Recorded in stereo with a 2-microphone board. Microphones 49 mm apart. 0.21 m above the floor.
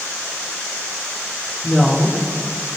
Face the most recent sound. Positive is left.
turn(degrees=-5)  # may be behind; listen again after turning